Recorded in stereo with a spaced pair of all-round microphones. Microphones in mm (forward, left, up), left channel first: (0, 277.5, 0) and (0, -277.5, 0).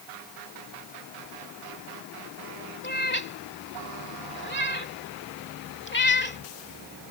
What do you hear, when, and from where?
2.8 s a cat meowing: 20° left (ahead or behind)